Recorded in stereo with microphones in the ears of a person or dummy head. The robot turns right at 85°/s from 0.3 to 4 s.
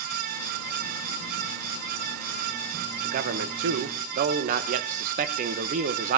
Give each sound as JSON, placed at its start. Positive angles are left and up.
{"t": 3.0, "sound": "a man speaking", "azimuth_deg": -135, "distance_m": 1.3}